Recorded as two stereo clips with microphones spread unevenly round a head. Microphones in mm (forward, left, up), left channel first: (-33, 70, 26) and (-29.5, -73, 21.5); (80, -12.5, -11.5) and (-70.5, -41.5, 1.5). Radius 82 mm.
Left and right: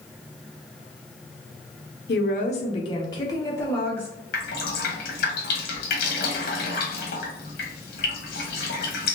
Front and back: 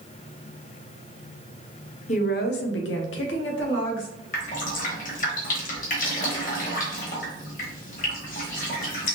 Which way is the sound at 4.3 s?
55° left.